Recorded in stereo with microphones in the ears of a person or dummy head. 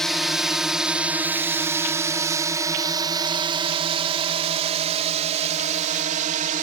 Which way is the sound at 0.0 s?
Centre (ahead or behind).